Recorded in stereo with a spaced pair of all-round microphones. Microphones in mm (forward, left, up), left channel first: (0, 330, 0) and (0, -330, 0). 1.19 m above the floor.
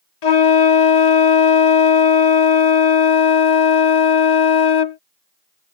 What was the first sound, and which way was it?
A flute, 75° left (ahead or behind).